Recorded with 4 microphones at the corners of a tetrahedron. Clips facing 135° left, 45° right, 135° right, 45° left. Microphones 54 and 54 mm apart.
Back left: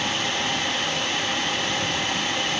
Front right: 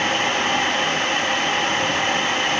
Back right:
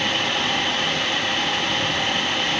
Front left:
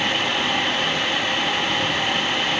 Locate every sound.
Only background noise.